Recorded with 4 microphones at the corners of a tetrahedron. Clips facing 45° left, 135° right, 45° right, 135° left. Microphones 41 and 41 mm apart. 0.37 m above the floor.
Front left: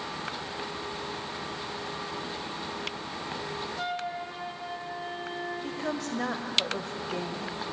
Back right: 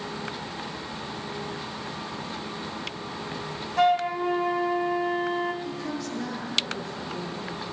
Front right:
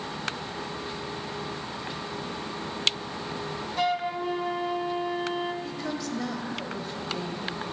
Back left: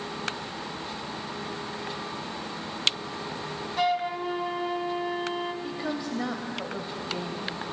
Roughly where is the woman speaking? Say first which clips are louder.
Even, back left 1 dB; ahead left.